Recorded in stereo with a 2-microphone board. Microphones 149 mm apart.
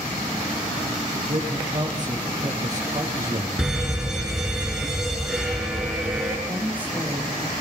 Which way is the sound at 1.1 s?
35° right (ahead or behind).